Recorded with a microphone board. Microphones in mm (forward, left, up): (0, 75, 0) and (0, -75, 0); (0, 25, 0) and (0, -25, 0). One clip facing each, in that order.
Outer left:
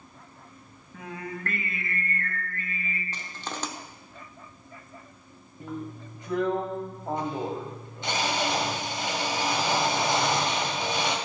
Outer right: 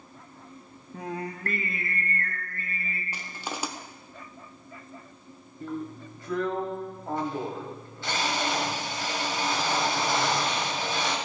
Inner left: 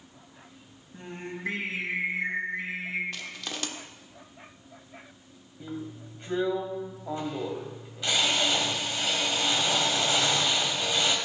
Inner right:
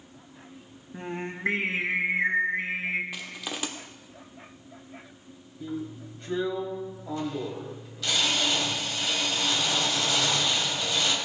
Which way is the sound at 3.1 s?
10° right (ahead or behind).